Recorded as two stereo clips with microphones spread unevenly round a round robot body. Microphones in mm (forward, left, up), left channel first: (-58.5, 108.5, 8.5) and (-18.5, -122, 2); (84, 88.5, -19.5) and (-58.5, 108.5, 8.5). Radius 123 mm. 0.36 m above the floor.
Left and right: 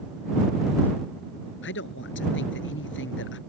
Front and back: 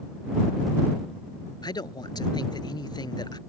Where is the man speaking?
55° left.